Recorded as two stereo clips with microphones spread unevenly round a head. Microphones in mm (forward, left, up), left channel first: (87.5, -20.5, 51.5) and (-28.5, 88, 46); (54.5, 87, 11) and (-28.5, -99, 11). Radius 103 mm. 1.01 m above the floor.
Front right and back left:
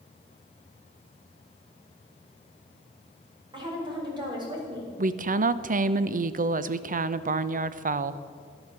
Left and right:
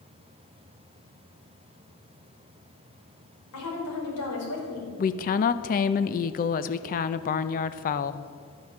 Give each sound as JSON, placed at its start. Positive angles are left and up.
{"t": 3.5, "sound": "a woman speaking", "azimuth_deg": 75, "distance_m": 4.5}
{"t": 5.0, "sound": "a woman speaking", "azimuth_deg": 110, "distance_m": 0.6}